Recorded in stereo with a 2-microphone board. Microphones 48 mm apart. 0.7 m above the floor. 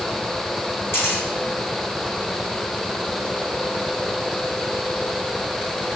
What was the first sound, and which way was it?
A camera shutter, 50° left (ahead or behind).